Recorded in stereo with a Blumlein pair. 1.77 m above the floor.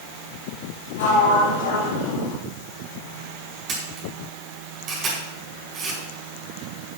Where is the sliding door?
60° left, 3.5 m.